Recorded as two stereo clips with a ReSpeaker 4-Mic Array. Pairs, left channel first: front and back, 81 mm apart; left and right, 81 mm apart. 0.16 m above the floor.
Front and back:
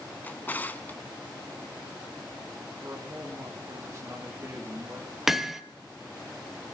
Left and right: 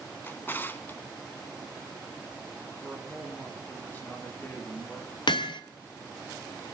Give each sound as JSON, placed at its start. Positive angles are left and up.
{"t": 0.2, "sound": "a drawer", "azimuth_deg": 50, "distance_m": 0.7}
{"t": 2.8, "sound": "a man speaking", "azimuth_deg": 145, "distance_m": 2.5}
{"t": 5.3, "sound": "hammering", "azimuth_deg": 95, "distance_m": 0.8}